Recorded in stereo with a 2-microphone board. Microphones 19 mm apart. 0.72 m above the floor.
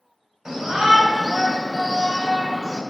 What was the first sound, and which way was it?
A shout, 15° right (ahead or behind).